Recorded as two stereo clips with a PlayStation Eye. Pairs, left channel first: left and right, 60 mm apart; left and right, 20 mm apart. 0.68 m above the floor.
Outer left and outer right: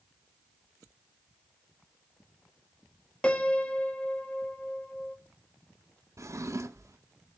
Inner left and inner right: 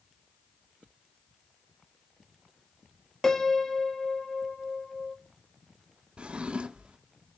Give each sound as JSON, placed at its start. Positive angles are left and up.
{"t": 3.2, "sound": "a piano", "side_deg": 20, "distance_m": 0.9}
{"t": 6.2, "sound": "a drawer", "side_deg": -65, "distance_m": 0.7}